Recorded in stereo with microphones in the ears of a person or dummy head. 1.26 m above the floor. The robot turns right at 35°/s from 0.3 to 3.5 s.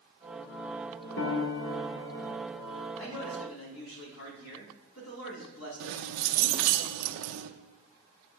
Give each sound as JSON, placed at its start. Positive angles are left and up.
{"t": 1.2, "sound": "a piano", "azimuth_deg": 80, "distance_m": 1.1}
{"t": 3.0, "sound": "a man speaking", "side_deg": 80, "distance_m": 2.5}
{"t": 5.8, "sound": "keys jangling", "side_deg": -80, "distance_m": 0.7}